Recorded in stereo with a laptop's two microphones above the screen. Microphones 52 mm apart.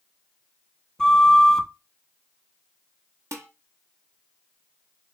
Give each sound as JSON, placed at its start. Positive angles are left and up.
{"t": 1.0, "sound": "a flute", "side_deg": 15, "distance_m": 0.5}
{"t": 3.3, "sound": "dishes clattering", "side_deg": -70, "distance_m": 0.9}